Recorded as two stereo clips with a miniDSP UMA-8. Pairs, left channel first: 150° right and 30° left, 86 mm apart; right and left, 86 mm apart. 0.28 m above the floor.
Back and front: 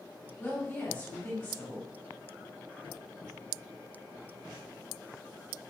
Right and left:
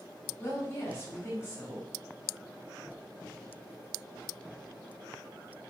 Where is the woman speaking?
115° right, 1.7 m.